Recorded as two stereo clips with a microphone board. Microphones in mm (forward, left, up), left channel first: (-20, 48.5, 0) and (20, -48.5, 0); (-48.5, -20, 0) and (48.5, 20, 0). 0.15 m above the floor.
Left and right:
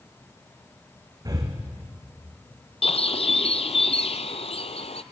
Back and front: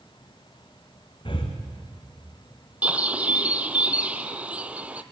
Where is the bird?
100° left, 0.7 m.